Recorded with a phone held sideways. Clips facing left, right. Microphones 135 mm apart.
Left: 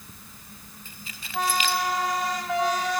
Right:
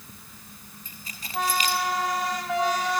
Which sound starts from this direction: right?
Keys jangling, at 0.8 s.